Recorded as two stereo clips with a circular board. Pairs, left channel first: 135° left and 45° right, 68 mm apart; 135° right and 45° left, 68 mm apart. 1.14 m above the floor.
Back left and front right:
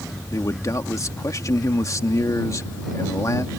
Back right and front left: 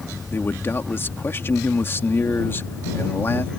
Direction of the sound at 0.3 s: 175° left.